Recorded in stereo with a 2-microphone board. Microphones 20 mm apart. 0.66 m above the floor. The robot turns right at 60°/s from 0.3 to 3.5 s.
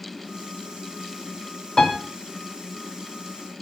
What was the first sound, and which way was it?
A piano, 45° left (ahead or behind).